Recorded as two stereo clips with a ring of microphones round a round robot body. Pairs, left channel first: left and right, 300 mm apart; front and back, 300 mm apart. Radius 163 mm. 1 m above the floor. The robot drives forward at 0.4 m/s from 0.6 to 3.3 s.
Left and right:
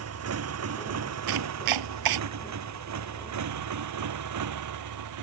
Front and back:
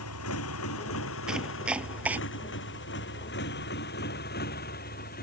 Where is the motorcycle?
50° right; by 5.2 s 65° right.